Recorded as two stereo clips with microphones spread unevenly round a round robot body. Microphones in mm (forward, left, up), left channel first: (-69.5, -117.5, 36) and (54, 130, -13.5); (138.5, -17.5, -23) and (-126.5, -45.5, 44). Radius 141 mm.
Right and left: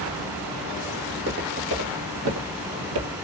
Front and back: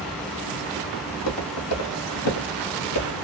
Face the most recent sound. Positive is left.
turn(degrees=60)